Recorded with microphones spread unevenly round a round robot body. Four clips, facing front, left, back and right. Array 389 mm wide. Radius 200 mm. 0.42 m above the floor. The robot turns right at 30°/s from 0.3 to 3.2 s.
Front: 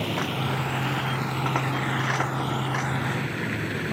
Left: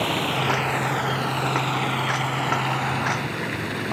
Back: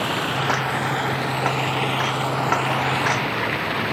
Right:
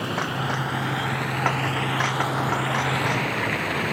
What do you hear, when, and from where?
0.0 s running water: 125° left; by 3.9 s 145° right